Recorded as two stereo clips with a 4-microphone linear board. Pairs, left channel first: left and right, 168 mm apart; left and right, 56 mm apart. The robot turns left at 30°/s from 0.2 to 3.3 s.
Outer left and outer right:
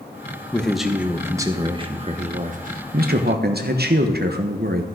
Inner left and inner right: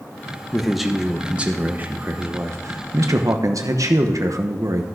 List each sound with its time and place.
0.5 s a man speaking: 5° left, 1.0 m; by 4.8 s 75° right, 1.0 m